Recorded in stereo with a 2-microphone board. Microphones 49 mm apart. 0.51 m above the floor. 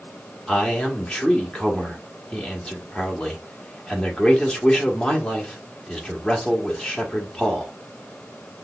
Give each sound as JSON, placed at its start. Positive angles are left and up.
{"t": 0.5, "sound": "a man speaking", "side_deg": 15, "distance_m": 1.2}